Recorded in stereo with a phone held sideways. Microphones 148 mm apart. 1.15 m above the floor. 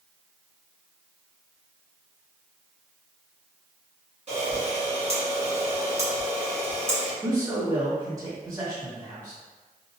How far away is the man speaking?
About 1.6 m.